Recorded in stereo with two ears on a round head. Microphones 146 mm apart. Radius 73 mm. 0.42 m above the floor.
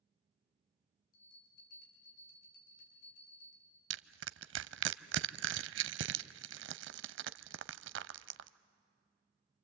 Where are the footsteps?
No footsteps in this recording.